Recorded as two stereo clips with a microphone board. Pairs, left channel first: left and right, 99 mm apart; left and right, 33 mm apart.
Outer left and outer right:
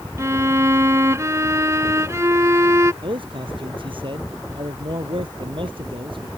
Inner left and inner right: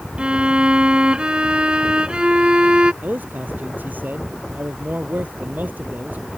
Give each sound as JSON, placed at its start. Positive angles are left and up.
{"t": 0.2, "sound": "a violin", "side_deg": -30}
{"t": 3.0, "sound": "a man speaking", "side_deg": -60}